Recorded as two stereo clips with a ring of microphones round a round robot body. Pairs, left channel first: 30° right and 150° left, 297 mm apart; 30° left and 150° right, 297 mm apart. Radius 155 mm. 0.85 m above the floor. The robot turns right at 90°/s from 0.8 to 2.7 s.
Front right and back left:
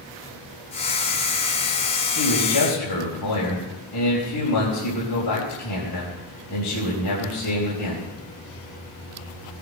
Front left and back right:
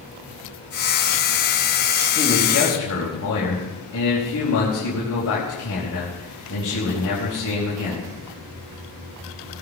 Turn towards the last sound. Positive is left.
turn(degrees=-15)